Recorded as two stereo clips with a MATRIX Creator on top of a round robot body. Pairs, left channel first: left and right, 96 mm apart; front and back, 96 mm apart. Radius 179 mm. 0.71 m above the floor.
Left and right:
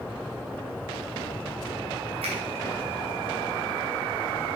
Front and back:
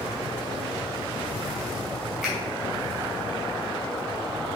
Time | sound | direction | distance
2.2 | a finger snap | 95° right | 3 m